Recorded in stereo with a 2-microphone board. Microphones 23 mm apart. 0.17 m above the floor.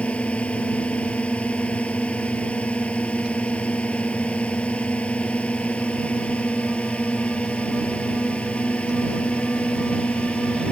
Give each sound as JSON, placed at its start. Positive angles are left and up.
{"t": 0.0, "sound": "a drone", "side_deg": 70}